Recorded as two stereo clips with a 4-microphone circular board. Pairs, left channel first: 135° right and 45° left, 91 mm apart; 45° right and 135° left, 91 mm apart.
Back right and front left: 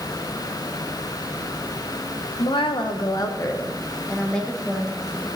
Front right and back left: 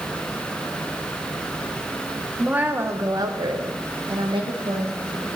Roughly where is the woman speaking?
Behind right.